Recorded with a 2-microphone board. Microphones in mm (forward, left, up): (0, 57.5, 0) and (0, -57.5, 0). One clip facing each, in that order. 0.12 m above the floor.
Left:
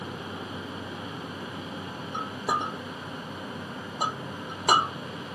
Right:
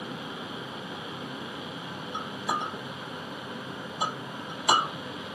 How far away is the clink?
About 1.7 m.